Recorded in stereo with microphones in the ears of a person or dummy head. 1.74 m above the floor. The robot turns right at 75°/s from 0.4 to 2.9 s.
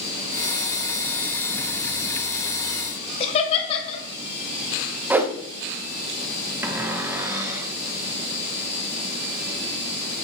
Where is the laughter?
40° left (ahead or behind), 1.2 m.